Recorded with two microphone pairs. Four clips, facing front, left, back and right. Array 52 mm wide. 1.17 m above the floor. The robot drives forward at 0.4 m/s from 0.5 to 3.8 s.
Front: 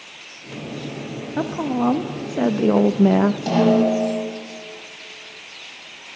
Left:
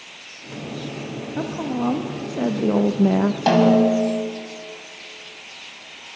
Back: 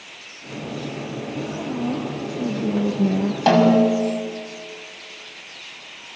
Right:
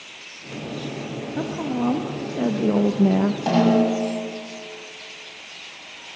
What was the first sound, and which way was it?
A woman speaking, 5° left.